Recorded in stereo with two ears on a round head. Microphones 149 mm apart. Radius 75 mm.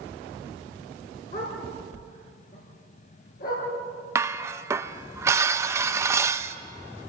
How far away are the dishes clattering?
About 0.7 m.